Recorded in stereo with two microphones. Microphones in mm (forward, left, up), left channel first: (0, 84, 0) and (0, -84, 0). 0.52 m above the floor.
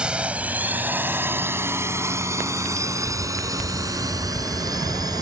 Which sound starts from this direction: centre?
A drone, at 0.0 s.